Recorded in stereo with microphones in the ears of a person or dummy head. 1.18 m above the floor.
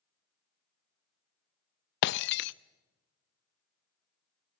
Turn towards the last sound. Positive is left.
turn(degrees=65)  # may be behind; listen again after turning